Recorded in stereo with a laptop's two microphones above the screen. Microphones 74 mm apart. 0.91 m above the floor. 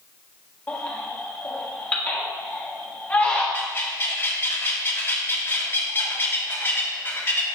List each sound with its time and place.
0.7 s a baby crying: 20° left (ahead or behind), 1.5 m
3.5 s a bird: 30° left (ahead or behind), 1.2 m